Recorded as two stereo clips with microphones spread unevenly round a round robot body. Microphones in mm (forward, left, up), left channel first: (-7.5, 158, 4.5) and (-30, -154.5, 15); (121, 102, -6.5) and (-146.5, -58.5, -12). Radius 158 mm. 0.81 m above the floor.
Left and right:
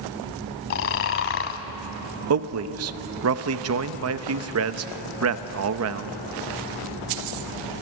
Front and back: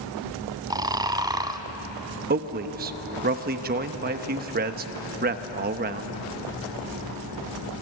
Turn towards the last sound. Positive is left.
turn(degrees=-100)